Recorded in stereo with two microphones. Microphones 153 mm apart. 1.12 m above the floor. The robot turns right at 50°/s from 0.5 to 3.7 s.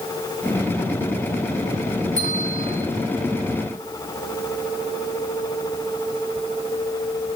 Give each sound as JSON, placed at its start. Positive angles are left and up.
{"t": 2.2, "sound": "a bell", "azimuth_deg": -55, "distance_m": 1.7}